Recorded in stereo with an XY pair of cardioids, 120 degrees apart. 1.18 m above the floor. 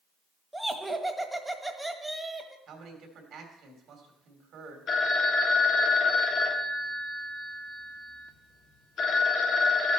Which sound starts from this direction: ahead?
Laughter, at 0.5 s.